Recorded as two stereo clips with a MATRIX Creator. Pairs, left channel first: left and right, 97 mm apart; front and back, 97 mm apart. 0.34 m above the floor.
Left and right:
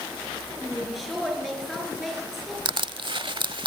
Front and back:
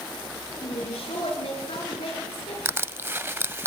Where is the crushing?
115° right, 0.6 m.